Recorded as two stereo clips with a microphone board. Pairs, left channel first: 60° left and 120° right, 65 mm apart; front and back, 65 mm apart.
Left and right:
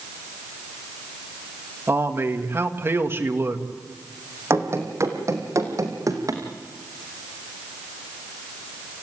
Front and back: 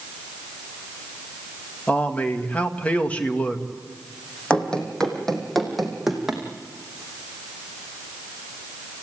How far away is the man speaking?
About 2 m.